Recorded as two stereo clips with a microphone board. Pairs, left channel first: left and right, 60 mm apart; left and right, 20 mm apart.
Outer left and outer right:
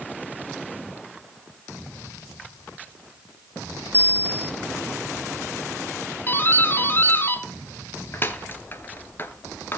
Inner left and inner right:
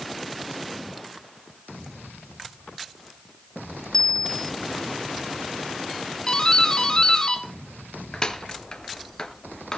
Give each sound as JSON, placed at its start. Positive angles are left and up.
{"t": 3.9, "sound": "a bicycle bell", "side_deg": 35, "distance_m": 3.0}
{"t": 6.3, "sound": "a doorbell", "side_deg": 35, "distance_m": 2.0}